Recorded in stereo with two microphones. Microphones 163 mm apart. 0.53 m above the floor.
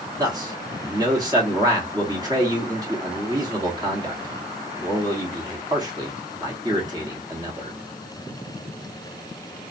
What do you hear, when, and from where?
0.2 s a man speaking: 25° right (ahead or behind), 1.1 m